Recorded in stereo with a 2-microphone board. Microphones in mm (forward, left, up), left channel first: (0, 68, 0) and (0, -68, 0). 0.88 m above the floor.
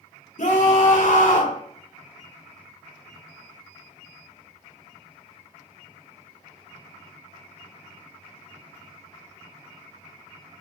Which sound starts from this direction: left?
A scream, at 0.4 s.